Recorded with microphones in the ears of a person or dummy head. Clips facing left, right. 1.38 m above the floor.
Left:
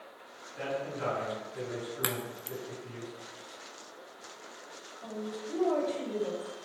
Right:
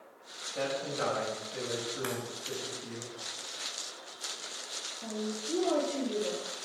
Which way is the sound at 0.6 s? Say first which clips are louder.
Right 2 dB; 85° right.